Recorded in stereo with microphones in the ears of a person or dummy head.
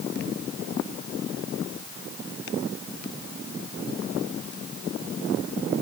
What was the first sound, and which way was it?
Only background noise.